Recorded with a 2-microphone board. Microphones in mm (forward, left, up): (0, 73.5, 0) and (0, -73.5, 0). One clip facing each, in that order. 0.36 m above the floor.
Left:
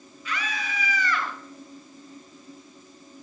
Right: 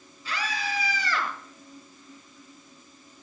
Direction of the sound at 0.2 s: 30° right (ahead or behind).